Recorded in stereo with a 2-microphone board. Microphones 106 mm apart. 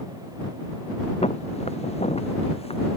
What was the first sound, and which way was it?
Footsteps, 85° left.